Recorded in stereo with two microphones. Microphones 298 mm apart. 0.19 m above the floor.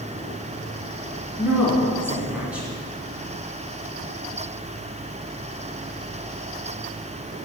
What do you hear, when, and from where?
1.4 s a woman speaking: 5° right (ahead or behind), 2.5 m